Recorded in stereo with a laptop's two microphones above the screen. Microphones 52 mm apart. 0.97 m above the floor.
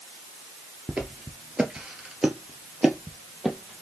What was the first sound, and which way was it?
Footsteps, 20° right (ahead or behind).